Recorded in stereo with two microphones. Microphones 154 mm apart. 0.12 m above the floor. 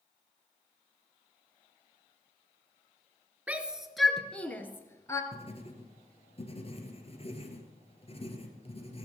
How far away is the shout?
About 1.4 m.